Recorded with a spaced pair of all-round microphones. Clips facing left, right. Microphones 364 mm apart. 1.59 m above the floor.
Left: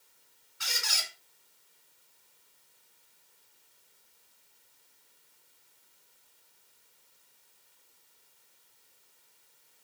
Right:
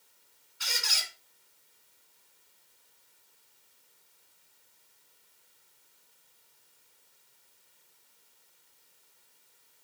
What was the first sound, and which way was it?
A squeak, 60° left (ahead or behind).